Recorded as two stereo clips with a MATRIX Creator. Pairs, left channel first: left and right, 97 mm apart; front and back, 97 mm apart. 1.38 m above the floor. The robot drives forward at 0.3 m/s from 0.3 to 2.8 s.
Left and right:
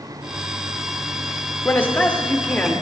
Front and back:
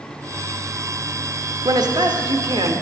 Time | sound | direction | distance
1.6 | a man speaking | 150° left | 0.6 m